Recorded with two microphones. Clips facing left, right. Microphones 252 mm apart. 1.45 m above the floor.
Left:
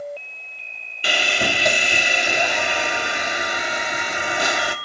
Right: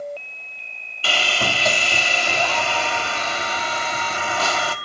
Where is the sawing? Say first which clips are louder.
Left 1 dB; 15° left (ahead or behind), 1.1 m.